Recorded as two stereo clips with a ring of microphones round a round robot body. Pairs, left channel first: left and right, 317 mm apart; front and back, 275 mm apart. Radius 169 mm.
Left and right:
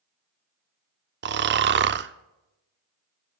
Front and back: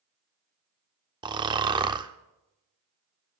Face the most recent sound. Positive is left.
turn(degrees=-115)